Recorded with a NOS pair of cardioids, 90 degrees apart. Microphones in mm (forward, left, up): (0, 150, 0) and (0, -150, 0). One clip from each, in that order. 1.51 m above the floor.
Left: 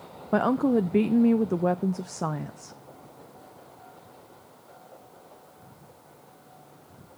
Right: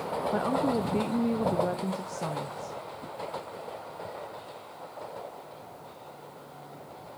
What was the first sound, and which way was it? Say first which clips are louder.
A woman speaking: left 6 dB; 30° left.